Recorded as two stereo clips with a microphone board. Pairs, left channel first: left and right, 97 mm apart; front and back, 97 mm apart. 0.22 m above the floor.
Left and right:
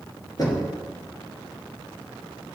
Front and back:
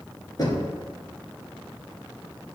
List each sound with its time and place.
0.4 s knocking: 45° left, 2 m